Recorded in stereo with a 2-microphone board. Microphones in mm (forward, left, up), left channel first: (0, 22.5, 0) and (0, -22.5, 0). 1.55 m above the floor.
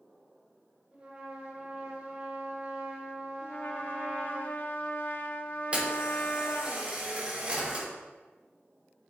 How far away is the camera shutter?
About 3.5 m.